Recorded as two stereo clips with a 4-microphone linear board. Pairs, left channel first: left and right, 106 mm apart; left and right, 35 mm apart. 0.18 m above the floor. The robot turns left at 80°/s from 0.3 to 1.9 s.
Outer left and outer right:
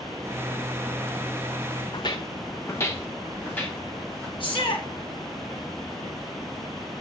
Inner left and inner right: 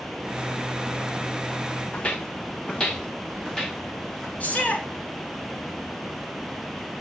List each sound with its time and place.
1.9 s footsteps: 45° left (ahead or behind), 0.9 m; by 4.3 s 10° left (ahead or behind), 2.5 m
4.4 s a shout: 50° left (ahead or behind), 1.8 m